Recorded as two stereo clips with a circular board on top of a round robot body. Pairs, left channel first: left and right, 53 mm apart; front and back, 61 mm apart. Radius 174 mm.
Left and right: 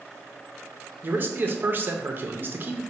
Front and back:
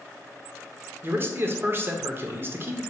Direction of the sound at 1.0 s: 135° right.